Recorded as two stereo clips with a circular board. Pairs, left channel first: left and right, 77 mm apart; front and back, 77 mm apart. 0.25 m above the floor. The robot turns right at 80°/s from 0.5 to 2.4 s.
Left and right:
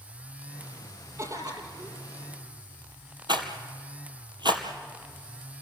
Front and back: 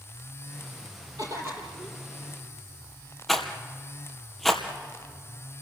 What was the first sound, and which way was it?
A cough, 150° right.